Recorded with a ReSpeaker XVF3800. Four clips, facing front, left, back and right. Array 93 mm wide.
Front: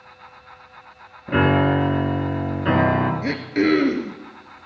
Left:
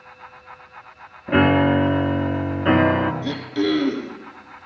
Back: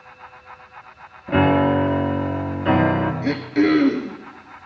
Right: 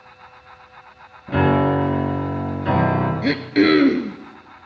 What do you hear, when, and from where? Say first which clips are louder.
1.3 s a piano: left 1 dB, back 1 dB; 70° left, 2.0 m
3.2 s throat clearing: right 6 dB, back 2 dB; 85° right, 1.3 m